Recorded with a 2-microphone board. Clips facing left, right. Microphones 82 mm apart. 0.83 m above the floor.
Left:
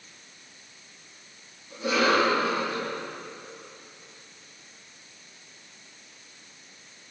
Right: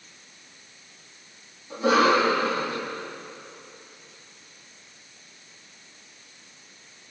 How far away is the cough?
About 7.5 m.